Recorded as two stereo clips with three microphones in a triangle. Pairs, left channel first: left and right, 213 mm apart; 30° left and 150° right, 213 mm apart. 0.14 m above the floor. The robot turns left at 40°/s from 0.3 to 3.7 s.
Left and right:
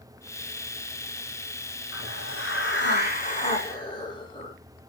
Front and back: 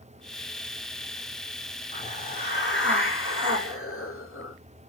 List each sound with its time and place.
1.9 s a hiss: 90° left, 7 m; by 4.5 s 20° left, 7 m